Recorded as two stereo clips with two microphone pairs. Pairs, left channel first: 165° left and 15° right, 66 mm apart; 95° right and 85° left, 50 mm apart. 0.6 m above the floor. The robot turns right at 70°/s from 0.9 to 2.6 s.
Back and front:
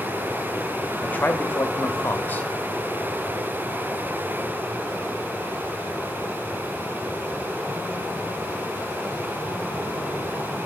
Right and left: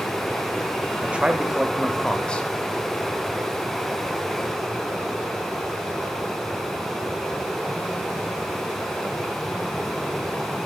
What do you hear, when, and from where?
1.0 s a man speaking: 110° left, 0.6 m; by 2.5 s 145° right, 0.6 m